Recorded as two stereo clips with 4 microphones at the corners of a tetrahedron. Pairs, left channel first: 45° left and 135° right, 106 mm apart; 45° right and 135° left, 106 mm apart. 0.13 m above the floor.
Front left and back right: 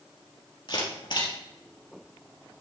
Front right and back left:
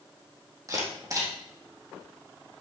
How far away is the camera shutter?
About 3.5 m.